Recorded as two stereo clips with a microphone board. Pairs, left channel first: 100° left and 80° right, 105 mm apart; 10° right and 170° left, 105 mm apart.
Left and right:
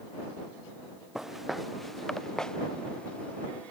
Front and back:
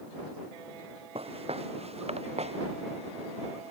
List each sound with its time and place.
1.1 s footsteps: 165° right; by 3.7 s 175° left